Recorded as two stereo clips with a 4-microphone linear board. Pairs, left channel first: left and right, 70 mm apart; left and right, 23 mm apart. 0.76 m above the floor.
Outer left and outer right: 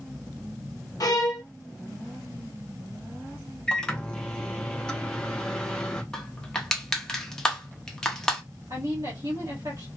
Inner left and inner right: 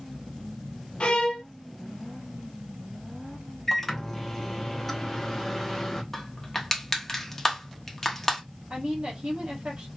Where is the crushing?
10° left (ahead or behind), 0.8 m.